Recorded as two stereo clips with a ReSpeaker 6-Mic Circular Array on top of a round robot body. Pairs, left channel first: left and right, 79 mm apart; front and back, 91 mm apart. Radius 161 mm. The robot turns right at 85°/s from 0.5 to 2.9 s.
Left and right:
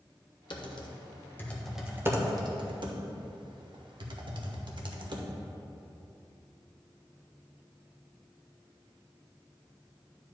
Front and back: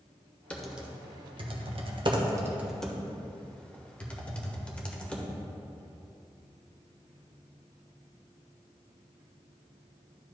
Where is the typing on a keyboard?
75° left, 1.2 m; by 5.3 s 80° right, 1.2 m.